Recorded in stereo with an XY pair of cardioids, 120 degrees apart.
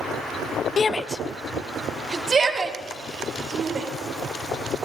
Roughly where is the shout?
Ahead left.